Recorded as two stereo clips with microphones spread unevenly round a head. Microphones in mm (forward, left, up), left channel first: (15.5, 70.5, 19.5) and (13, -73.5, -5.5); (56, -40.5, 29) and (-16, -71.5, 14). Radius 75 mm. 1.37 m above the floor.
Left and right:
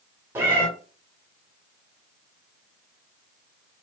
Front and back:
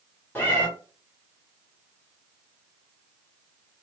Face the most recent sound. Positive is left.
turn(degrees=-15)